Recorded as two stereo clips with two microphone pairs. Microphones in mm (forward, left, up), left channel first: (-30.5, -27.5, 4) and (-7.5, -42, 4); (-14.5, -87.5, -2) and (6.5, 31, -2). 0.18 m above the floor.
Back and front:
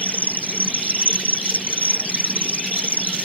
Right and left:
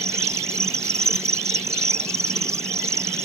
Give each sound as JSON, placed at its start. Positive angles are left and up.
{"t": 0.0, "sound": "an insect", "azimuth_deg": 145}